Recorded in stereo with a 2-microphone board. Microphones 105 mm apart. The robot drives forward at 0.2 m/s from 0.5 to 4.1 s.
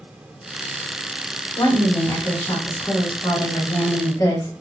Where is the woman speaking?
45° left (ahead or behind), 1.6 m; by 4.5 s 35° left (ahead or behind), 2.0 m.